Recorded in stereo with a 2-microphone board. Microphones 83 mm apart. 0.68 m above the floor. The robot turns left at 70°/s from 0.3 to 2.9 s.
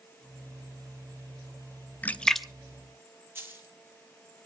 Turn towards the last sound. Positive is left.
turn(degrees=-30)  # may be behind; listen again after turning